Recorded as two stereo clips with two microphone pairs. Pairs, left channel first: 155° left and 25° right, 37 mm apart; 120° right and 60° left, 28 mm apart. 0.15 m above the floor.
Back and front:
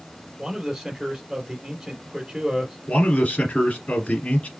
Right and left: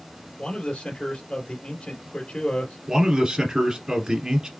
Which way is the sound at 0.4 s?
100° right.